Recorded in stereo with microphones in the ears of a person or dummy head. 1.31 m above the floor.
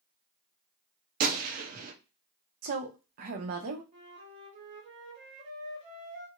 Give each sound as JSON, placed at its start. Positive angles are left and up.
{"t": 1.2, "sound": "a gunshot", "side_deg": -45, "distance_m": 0.7}
{"t": 2.6, "sound": "a woman speaking", "side_deg": -50, "distance_m": 0.7}
{"t": 3.9, "sound": "a flute", "side_deg": -40, "distance_m": 1.1}